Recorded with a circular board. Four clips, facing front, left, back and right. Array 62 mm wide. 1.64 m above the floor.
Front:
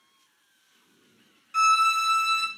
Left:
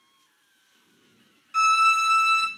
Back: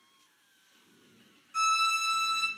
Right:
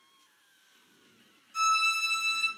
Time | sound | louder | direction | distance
1.5 | a violin | left 8 dB, front 7 dB | 55° left | 0.5 m